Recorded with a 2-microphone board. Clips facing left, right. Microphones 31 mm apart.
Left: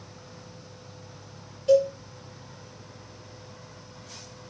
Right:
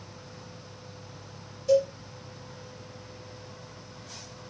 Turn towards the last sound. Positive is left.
turn(degrees=50)  # may be behind; listen again after turning